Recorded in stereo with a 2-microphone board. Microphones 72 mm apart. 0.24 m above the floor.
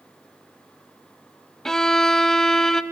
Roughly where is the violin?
Centre.